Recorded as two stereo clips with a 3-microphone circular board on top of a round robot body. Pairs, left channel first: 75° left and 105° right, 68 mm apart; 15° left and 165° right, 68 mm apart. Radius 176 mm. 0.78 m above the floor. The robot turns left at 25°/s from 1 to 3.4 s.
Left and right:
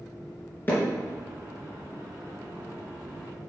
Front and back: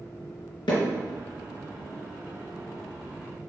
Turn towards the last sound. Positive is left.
turn(degrees=-50)